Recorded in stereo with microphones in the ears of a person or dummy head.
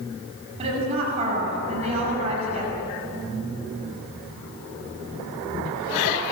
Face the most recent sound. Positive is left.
turn(degrees=-35)  # may be behind; listen again after turning